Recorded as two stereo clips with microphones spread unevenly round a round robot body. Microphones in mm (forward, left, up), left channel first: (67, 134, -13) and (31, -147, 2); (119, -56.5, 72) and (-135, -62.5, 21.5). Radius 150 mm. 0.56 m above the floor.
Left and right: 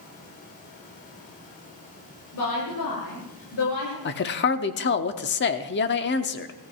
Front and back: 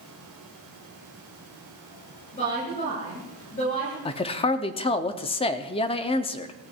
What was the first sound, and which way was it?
A woman speaking, 70° left.